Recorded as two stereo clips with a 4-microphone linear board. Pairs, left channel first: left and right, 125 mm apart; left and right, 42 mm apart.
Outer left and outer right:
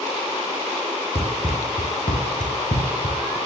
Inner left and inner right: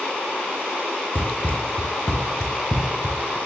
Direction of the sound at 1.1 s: 55° left (ahead or behind).